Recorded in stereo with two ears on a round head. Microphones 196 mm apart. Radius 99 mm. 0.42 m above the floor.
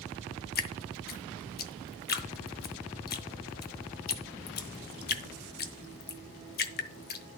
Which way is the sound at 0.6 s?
45° left (ahead or behind).